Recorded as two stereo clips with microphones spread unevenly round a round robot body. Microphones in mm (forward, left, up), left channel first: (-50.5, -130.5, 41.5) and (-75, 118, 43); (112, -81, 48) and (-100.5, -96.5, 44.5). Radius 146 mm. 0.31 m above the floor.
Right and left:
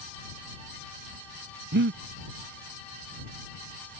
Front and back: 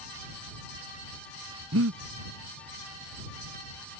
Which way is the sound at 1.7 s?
145° left.